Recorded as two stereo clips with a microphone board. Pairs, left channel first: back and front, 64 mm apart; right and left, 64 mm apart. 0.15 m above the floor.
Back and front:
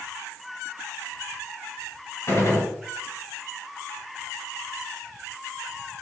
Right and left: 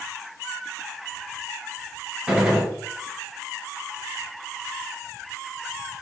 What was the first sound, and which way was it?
A gunshot, 175° left.